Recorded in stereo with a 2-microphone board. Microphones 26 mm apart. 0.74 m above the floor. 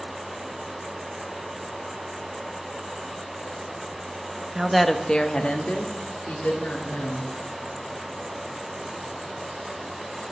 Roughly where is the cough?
No cough in this recording.